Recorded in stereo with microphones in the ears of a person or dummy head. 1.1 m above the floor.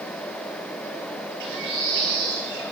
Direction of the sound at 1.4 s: 65° right (ahead or behind).